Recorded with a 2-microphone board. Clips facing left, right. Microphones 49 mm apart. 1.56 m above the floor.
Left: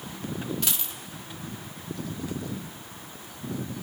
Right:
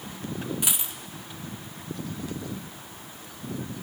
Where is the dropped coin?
15° right (ahead or behind), 1.3 m.